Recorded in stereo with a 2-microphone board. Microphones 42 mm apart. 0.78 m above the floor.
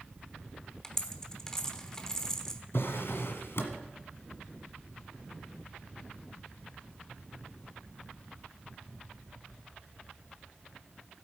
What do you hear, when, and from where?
0.8 s a dropped coin: 15° left (ahead or behind), 1.1 m
2.7 s a drawer: 70° left (ahead or behind), 1.5 m